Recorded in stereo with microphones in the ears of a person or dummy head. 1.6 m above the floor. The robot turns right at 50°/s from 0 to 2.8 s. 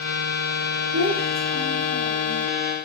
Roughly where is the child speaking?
Right.